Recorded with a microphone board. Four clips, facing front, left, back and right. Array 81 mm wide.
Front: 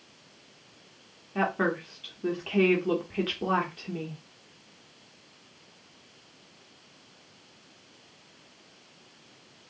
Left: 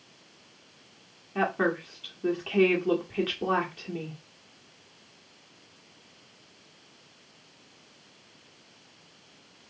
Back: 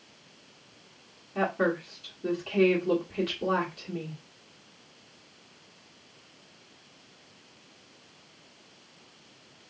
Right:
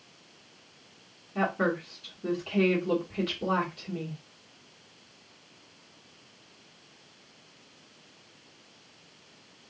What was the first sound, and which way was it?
A woman speaking, 50° left.